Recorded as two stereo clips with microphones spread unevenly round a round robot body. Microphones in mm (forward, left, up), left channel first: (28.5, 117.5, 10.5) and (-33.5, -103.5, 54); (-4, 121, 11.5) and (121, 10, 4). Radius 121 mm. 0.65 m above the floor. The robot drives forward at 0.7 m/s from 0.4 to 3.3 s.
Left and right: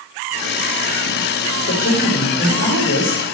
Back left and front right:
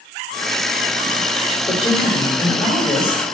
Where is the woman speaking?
85° left, 4 m; by 3.2 s 100° left, 4 m.